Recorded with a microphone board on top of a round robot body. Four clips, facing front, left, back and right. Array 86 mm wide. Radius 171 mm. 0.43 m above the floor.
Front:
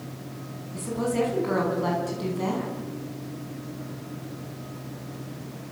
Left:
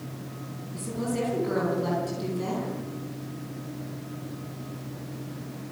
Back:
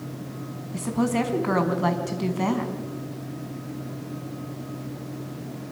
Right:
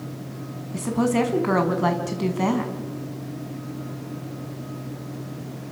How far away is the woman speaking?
About 5 m.